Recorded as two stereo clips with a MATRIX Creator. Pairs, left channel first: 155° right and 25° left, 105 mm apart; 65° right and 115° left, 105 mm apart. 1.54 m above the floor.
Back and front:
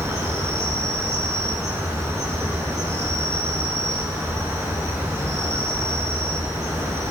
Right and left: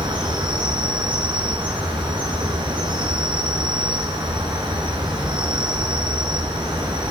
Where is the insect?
80° left, 2.5 m.